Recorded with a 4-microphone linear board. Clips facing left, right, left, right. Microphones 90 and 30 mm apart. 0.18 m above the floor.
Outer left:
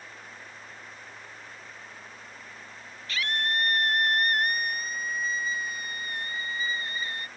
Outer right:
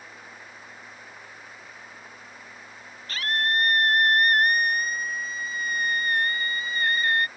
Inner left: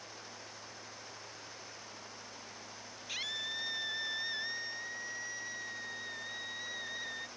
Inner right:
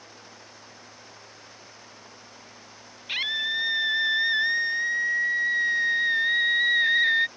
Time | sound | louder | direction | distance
3.1 | a scream | outer right 3 dB, inner right 12 dB | 40° right (ahead or behind) | ?